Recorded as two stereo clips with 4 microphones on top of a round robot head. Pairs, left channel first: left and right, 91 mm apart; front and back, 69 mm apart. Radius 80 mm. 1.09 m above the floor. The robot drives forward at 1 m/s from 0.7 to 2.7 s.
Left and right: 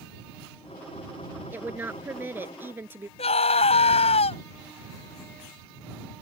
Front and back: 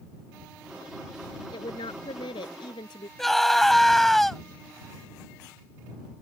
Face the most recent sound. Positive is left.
turn(degrees=85)